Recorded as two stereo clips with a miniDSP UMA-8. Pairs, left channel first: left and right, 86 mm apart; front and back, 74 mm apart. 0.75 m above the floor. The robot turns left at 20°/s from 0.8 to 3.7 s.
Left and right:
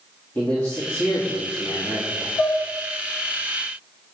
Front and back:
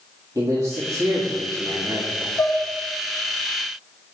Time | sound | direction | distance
0.3 | a man speaking | 160° left | 1.6 m
2.4 | dishes clattering | 60° left | 1.3 m